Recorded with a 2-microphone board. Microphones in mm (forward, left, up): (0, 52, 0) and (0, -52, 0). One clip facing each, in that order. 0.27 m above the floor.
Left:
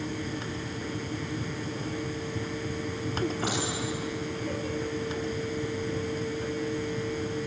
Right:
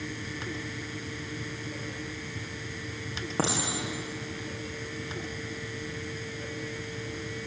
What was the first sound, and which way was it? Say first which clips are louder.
A clink: even; 85° right.